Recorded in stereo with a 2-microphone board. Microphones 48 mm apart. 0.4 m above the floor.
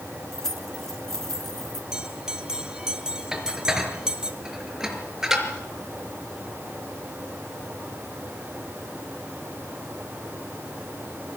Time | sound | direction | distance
0.3 | keys jangling | 10° left (ahead or behind) | 4 m
1.9 | a bell | 15° right (ahead or behind) | 3 m
3.3 | dishes clattering | 10° right (ahead or behind) | 5 m